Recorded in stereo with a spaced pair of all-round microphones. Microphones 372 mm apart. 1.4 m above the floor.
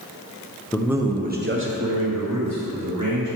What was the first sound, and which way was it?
A man speaking, 10° left (ahead or behind).